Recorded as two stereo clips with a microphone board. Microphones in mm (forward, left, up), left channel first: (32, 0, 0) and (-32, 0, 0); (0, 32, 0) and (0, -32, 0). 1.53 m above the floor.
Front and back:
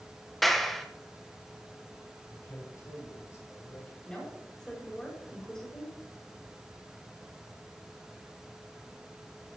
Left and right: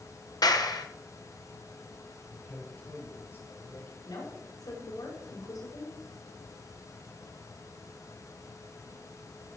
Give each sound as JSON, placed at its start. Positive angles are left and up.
{"t": 0.4, "sound": "a clap", "azimuth_deg": 85, "distance_m": 1.2}
{"t": 2.3, "sound": "a man speaking", "azimuth_deg": 35, "distance_m": 5.0}
{"t": 4.0, "sound": "a woman speaking", "azimuth_deg": 75, "distance_m": 5.5}